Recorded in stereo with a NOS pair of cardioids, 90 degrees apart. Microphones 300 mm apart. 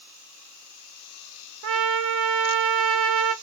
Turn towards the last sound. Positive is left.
turn(degrees=-50)